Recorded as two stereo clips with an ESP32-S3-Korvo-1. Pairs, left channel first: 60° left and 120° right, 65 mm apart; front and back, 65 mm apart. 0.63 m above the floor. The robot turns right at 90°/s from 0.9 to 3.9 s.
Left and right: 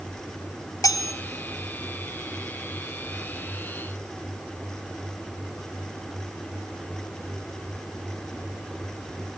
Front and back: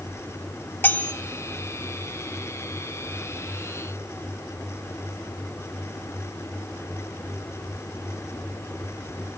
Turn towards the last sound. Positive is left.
turn(degrees=-40)